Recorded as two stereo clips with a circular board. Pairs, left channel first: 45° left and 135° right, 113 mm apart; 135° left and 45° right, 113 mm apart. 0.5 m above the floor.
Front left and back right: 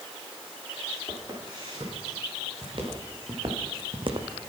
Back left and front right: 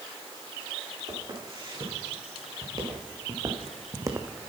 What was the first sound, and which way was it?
Footsteps, 90° right.